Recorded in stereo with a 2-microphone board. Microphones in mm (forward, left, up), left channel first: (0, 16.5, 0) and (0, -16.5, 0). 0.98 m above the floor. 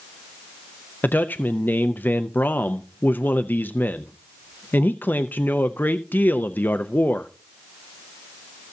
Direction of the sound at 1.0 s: 65° left (ahead or behind).